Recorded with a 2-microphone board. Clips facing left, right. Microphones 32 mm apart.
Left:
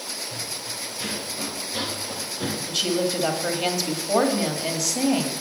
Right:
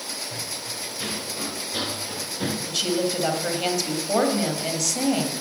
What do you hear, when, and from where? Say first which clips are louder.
0.3 s running footsteps: even; 20° right (ahead or behind), 5 m
2.7 s a woman speaking: left 1 dB; centre (ahead or behind), 1.7 m